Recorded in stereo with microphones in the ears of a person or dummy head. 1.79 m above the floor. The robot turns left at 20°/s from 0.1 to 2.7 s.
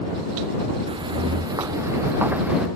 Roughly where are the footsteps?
Right.